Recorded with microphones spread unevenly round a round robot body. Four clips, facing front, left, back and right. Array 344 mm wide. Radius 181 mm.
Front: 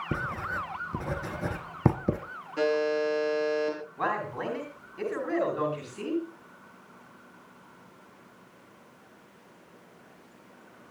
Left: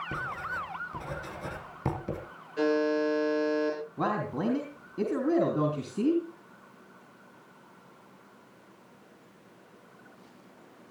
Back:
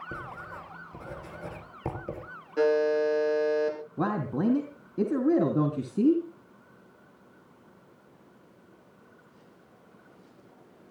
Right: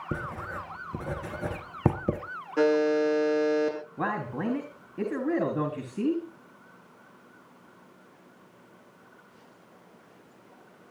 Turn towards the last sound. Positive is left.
turn(degrees=180)